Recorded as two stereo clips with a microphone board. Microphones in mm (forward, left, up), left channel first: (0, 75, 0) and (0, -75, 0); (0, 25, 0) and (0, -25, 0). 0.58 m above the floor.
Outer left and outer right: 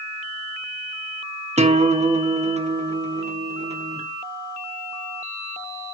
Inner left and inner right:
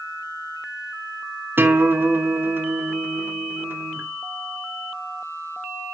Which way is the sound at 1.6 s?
45° right (ahead or behind).